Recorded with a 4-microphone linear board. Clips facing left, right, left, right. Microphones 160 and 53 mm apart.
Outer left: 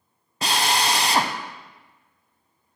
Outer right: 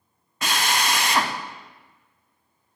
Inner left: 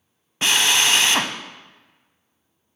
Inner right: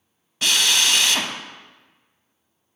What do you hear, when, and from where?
0.4 s a drill: 30° left (ahead or behind), 0.5 m